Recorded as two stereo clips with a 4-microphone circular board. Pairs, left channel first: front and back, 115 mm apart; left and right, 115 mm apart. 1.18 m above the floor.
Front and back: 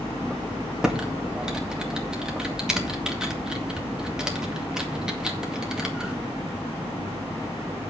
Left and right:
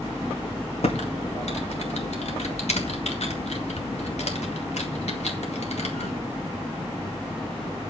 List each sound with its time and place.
0.8 s typing on a keyboard: 95° left, 2 m